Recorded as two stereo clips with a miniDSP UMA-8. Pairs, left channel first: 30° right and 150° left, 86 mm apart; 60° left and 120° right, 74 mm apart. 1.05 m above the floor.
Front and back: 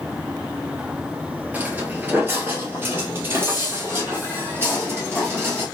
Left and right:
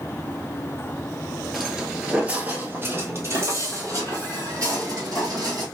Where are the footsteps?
150° left, 1.0 m; by 5.7 s 145° right, 2.5 m.